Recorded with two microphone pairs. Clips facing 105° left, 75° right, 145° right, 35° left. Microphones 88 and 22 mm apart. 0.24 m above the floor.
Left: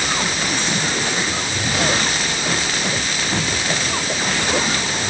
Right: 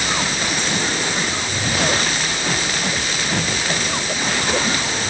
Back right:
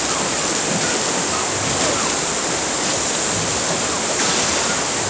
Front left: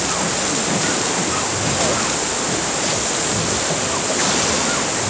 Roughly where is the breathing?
No breathing in this recording.